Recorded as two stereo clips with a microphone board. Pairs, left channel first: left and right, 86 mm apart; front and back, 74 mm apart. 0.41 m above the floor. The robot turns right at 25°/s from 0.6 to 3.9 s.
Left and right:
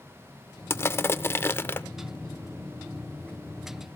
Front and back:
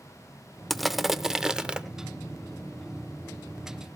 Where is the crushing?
90° left, 0.6 m; by 1.8 s 120° left, 0.6 m.